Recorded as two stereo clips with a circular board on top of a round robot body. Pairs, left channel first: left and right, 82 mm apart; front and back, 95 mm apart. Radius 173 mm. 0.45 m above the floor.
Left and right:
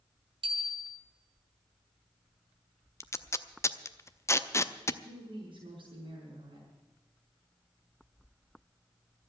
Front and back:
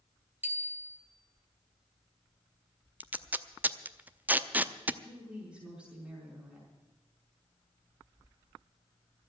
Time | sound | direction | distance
0.4 | a bicycle bell | 110° right | 2.5 m
3.0 | tape being pulled | 115° left | 0.9 m
5.0 | a woman speaking | 100° right | 5 m